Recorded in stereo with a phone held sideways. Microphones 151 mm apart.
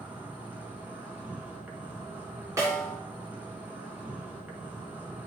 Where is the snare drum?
20° right (ahead or behind), 2.5 m.